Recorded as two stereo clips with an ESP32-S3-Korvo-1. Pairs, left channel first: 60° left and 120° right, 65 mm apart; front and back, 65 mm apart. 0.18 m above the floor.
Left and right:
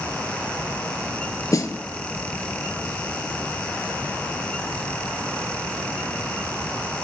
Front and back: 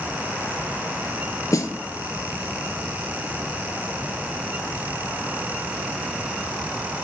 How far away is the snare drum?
About 0.6 m.